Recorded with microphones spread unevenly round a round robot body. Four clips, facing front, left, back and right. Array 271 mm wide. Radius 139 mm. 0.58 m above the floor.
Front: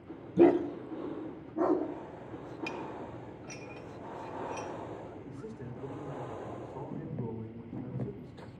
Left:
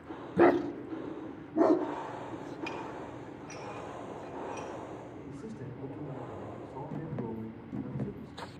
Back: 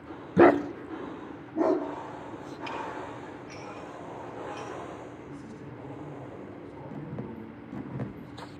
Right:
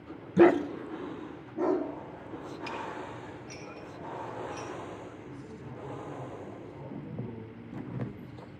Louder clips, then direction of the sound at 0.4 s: Right 3 dB, back 4 dB; 170° right.